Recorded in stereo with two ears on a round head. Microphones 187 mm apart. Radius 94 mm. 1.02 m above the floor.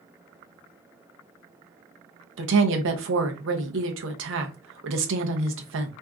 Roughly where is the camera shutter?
No camera shutter in this recording.